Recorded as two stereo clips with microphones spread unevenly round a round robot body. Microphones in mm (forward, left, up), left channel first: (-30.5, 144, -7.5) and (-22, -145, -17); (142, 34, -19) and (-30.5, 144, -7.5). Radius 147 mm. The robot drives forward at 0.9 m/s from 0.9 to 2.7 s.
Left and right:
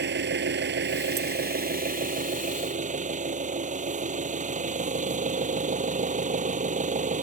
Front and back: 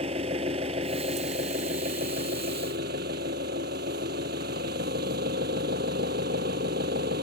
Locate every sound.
0.0 s an engine running: 145° right; by 7.2 s 155° right